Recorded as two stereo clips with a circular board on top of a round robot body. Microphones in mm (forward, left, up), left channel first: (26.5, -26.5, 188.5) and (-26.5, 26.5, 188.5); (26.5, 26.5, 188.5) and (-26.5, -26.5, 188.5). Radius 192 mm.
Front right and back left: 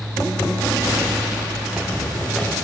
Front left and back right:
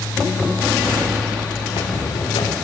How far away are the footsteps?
About 5 m.